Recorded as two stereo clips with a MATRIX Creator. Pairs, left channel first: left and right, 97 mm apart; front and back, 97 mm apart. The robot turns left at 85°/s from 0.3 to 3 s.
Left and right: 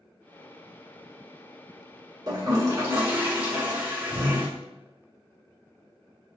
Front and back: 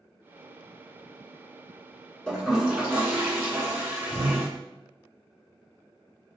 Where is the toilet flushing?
80° right, 1.0 m; by 4.5 s 140° right, 1.0 m.